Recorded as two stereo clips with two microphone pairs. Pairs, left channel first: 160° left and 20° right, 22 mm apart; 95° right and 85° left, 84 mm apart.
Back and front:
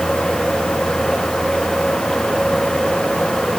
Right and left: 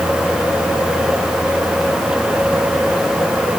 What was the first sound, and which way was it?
Only background noise.